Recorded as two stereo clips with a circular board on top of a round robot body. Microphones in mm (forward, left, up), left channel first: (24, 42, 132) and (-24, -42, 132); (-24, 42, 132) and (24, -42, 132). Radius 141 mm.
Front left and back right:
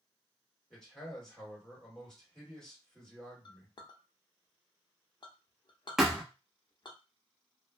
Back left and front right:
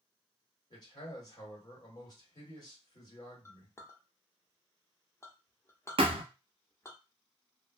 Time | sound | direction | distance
0.7 | a man speaking | 140° left | 1.9 m
3.5 | a clink | 70° left | 0.7 m
6.0 | a thud | 35° right | 0.6 m